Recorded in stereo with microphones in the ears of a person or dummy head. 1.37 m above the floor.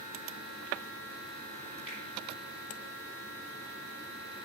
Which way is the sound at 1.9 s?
5° right (ahead or behind).